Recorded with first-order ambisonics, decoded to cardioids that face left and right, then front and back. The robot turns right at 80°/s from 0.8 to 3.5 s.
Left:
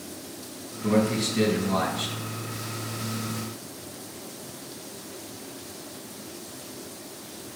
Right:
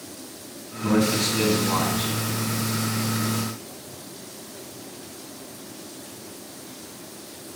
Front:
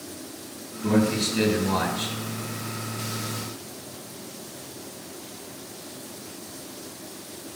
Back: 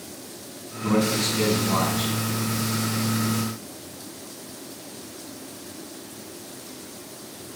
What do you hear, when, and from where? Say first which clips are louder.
0.8 s a man speaking: right 2 dB, back 1 dB; 70° right, 4.5 m; by 2.2 s 35° left, 4.5 m